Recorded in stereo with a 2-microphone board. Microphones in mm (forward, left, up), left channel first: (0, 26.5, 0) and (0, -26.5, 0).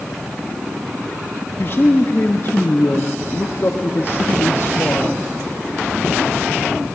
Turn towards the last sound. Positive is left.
turn(degrees=45)  # may be behind; listen again after turning